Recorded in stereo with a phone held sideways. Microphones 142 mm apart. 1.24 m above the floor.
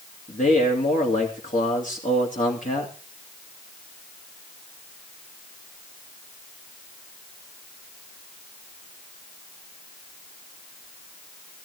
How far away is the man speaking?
About 2.5 m.